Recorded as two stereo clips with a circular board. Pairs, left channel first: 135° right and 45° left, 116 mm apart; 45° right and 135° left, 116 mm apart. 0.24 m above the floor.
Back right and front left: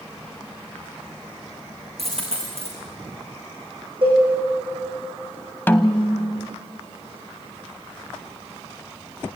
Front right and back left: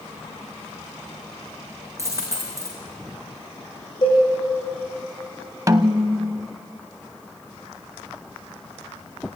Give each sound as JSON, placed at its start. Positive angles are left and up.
{"t": 2.0, "sound": "a dropped coin", "azimuth_deg": 70, "distance_m": 6.0}
{"t": 4.0, "sound": "a cowbell", "azimuth_deg": 5, "distance_m": 9.0}
{"t": 5.7, "sound": "a snare drum", "azimuth_deg": 170, "distance_m": 0.9}